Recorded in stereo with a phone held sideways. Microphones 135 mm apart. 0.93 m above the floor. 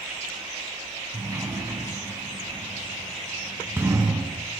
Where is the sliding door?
20° right (ahead or behind), 1.2 m.